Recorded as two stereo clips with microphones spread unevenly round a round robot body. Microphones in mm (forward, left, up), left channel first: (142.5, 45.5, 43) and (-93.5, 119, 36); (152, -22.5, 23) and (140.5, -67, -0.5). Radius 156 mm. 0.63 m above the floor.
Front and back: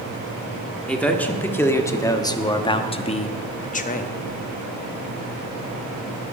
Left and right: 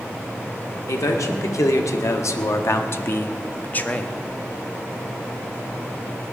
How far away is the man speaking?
About 1.9 m.